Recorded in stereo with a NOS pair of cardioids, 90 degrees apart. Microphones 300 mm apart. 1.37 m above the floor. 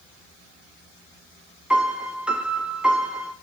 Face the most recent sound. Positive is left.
turn(degrees=-5)